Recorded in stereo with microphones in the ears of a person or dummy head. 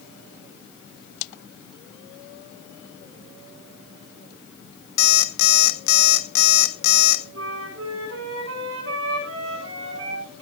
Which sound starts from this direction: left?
An alarm clock, at 5.0 s.